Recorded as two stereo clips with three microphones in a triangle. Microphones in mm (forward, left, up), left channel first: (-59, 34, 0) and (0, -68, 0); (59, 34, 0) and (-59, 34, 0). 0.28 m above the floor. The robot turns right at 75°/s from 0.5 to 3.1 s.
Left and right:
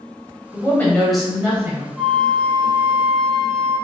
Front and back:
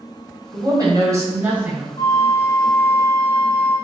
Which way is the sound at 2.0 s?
30° left.